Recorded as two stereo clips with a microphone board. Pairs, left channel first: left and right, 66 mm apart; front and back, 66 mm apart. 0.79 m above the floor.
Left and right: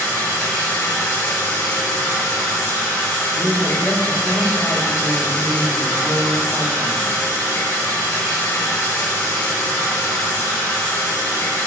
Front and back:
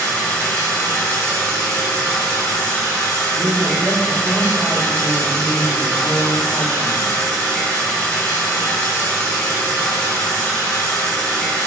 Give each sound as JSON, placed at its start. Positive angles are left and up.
{"t": 0.0, "sound": "running water", "azimuth_deg": 70, "distance_m": 1.3}
{"t": 3.3, "sound": "a woman speaking", "azimuth_deg": 110, "distance_m": 1.3}